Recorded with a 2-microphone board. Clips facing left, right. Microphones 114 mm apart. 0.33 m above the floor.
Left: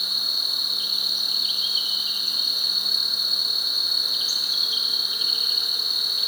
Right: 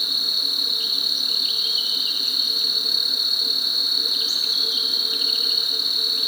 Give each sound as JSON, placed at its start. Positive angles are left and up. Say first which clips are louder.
{"t": 0.0, "sound": "an insect", "louder": "right 3 dB", "side_deg": -65, "distance_m": 1.2}